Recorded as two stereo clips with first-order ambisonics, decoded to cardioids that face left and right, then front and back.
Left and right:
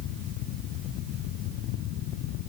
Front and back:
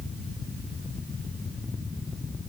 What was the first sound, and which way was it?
Only background noise.